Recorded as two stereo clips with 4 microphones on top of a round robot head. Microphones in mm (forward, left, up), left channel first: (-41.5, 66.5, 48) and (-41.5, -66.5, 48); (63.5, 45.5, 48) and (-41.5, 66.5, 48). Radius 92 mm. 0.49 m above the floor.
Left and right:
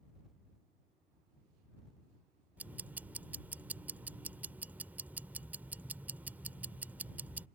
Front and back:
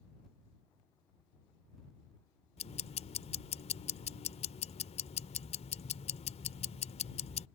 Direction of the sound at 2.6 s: 10° right.